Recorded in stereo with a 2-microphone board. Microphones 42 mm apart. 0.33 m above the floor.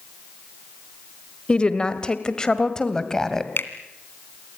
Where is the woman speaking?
25° left (ahead or behind), 1.7 m; by 3.5 s 10° left (ahead or behind), 2.5 m.